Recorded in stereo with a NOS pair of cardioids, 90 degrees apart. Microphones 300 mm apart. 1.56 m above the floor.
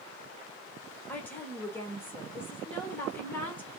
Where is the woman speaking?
5° left, 1.2 m.